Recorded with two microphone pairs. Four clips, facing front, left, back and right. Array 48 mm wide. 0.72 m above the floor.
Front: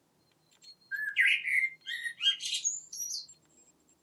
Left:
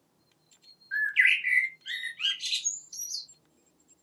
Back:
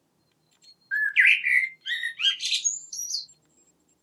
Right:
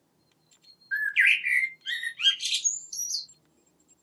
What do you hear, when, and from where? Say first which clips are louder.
0.9 s a bird: right 1 dB, back 8 dB; 170° right, 0.5 m